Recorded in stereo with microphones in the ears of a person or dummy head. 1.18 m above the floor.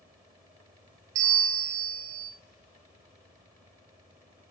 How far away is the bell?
About 1.4 m.